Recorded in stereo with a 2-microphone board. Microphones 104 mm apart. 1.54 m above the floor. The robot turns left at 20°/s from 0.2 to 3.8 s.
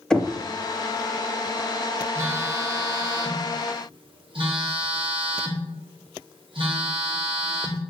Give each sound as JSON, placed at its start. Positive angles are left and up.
{"t": 0.1, "sound": "knocking", "side_deg": 5, "distance_m": 0.7}
{"t": 2.1, "sound": "a phone buzzing", "azimuth_deg": -30, "distance_m": 1.3}